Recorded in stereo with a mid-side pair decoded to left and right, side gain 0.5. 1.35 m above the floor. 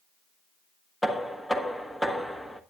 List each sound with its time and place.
1.0 s knocking: 5° left, 1.2 m